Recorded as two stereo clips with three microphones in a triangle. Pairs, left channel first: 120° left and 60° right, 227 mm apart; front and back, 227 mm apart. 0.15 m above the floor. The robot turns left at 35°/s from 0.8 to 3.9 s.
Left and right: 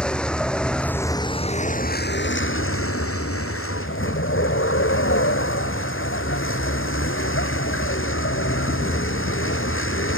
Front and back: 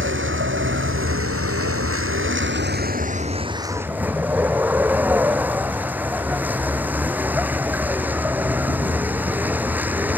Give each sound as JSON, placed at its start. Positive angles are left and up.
{"t": 0.0, "sound": "a vehicle", "azimuth_deg": -155}